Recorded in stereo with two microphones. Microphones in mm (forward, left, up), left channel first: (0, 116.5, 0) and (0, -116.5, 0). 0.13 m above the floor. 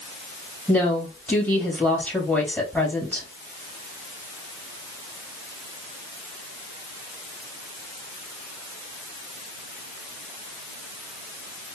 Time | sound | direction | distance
0.7 | a woman speaking | 5° left (ahead or behind) | 3 m